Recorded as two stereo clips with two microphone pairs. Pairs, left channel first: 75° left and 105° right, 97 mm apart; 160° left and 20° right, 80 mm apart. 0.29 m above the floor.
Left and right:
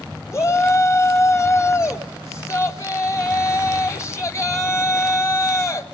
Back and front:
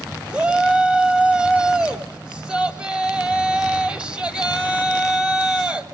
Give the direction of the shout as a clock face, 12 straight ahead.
10 o'clock.